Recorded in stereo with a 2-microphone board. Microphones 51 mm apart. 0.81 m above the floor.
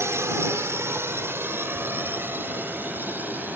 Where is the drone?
60° right (ahead or behind); by 3.6 s 35° right (ahead or behind).